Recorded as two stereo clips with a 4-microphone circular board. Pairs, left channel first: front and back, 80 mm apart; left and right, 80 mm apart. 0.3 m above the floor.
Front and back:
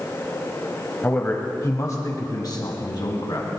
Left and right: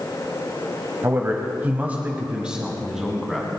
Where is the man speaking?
50° right, 1.4 m; by 3.5 s straight ahead, 2 m.